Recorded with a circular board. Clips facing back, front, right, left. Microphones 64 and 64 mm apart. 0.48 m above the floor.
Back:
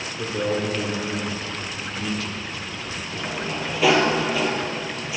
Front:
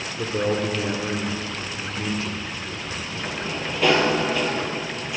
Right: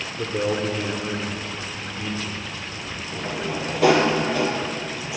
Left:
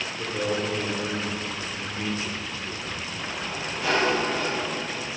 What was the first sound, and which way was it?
A man speaking, 60° right.